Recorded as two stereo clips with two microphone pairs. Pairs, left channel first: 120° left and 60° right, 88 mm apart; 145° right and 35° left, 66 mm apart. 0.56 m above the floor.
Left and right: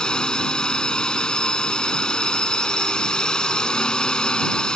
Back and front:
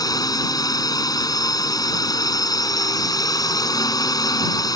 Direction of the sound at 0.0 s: 155° right.